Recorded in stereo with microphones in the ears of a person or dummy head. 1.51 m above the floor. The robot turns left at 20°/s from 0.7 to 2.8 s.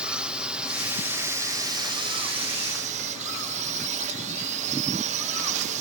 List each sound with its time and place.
0.0 s a drone: 5° right; by 5.8 s 50° right